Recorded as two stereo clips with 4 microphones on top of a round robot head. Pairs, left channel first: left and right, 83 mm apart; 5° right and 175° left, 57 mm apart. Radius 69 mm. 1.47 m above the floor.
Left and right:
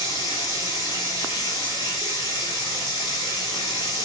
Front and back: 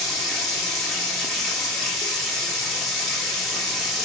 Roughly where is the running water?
Left.